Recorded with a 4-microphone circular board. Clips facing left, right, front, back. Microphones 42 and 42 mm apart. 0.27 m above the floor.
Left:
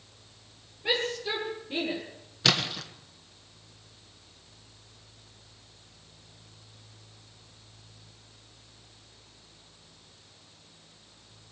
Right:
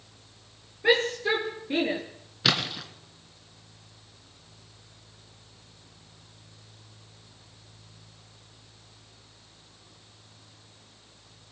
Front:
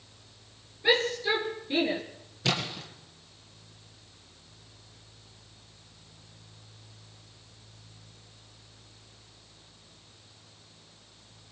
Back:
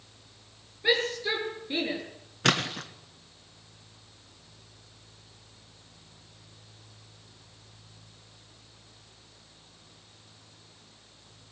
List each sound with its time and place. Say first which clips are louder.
0.8 s a shout: right 6 dB, front 1 dB; 95° right, 5 m
2.4 s a splash: even, back 4 dB; 175° right, 2.5 m